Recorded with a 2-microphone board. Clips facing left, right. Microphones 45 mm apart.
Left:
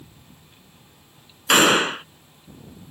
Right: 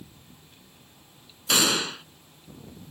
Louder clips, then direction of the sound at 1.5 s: Left 8 dB; 45° left (ahead or behind).